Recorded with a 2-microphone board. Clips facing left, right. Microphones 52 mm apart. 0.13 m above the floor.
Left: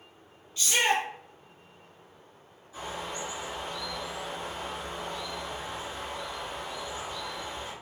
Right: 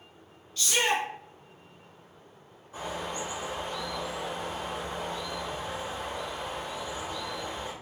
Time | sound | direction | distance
0.6 | a shout | 10° left (ahead or behind) | 1.5 m
2.7 | a bird | 50° right (ahead or behind) | 1.6 m